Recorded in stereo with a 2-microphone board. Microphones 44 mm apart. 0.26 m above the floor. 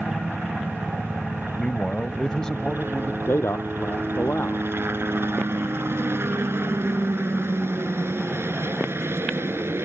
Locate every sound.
0.0 s a helicopter: 55° right (ahead or behind); by 9.8 s 70° right (ahead or behind)
1.6 s a man speaking: 20° left (ahead or behind)
3.2 s a man speaking: 65° left (ahead or behind)